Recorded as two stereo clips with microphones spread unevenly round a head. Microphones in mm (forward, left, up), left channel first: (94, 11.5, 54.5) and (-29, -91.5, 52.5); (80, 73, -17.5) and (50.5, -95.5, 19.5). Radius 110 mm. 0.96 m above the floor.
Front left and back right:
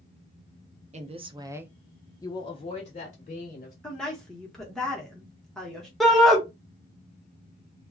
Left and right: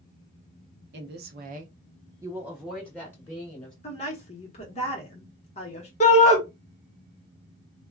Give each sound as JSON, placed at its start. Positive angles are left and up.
{"t": 0.9, "sound": "a woman speaking", "azimuth_deg": -110, "distance_m": 0.7}
{"t": 3.8, "sound": "a woman speaking", "azimuth_deg": 125, "distance_m": 1.0}
{"t": 6.0, "sound": "a shout", "azimuth_deg": 130, "distance_m": 0.8}